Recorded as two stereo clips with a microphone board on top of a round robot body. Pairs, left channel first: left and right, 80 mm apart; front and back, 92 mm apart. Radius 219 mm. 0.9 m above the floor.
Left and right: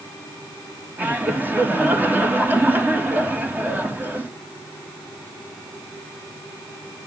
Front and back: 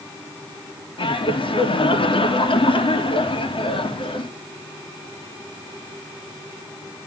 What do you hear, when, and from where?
1.0 s laughter: 20° right, 2.5 m